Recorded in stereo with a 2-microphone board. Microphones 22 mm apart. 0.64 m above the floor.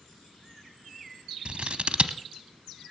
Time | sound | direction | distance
1.4 | scissors | 50° right (ahead or behind) | 0.8 m